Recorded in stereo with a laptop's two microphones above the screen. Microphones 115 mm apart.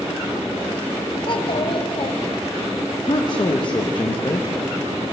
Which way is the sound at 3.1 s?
40° left (ahead or behind).